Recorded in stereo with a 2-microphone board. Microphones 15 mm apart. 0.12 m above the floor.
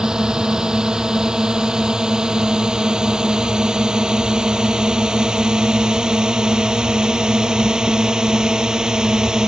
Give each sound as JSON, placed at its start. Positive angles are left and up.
{"t": 0.0, "sound": "a drone", "side_deg": -60}